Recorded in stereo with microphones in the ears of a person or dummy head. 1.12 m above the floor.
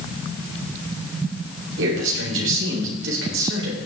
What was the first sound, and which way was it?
A man speaking, 85° right.